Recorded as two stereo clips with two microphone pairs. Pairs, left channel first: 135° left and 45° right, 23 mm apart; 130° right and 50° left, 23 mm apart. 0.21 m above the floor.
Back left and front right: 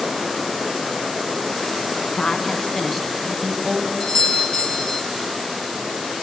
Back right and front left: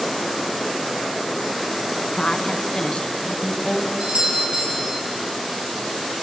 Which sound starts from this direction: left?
A doorbell, at 4.0 s.